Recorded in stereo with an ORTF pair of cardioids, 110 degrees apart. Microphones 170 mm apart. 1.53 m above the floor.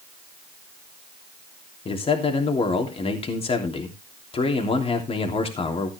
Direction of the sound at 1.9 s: 35° left.